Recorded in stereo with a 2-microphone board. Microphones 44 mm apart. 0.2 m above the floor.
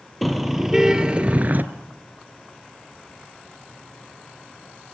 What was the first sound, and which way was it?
A car horn, centre (ahead or behind).